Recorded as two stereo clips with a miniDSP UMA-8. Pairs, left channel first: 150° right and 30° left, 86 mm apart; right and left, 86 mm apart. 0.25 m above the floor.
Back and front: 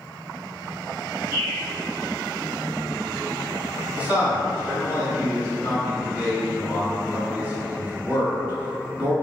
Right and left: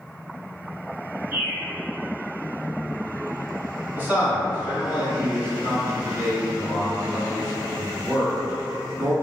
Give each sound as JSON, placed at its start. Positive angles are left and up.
{"t": 1.3, "sound": "a bird", "azimuth_deg": 100, "distance_m": 1.6}
{"t": 4.0, "sound": "a man speaking", "azimuth_deg": 75, "distance_m": 1.2}